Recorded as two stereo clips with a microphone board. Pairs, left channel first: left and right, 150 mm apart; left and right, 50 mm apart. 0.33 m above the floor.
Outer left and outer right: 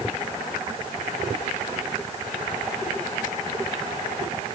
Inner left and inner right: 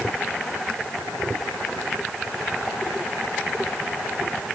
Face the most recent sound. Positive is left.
No sound to turn to.